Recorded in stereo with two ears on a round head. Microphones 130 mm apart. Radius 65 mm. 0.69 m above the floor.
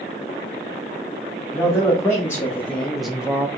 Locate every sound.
1.5 s a man speaking: 20° left (ahead or behind), 1.4 m; by 3.5 s 15° right (ahead or behind), 0.6 m